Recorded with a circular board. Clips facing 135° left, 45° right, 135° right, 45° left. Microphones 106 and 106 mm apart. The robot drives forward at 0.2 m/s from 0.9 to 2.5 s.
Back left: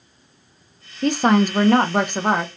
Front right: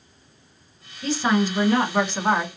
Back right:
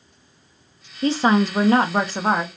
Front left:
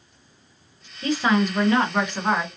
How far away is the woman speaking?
About 0.5 m.